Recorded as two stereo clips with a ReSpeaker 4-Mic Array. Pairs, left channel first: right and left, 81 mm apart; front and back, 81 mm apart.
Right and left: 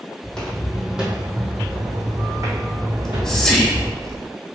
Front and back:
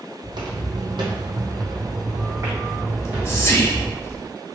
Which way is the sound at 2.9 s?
10° right.